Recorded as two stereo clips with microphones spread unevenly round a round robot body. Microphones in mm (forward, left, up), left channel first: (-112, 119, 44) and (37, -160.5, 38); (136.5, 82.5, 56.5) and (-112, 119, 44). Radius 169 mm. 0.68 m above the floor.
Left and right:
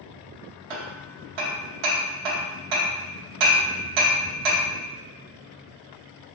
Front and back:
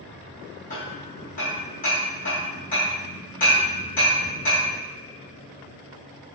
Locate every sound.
0.7 s hammering: 75° right, 0.9 m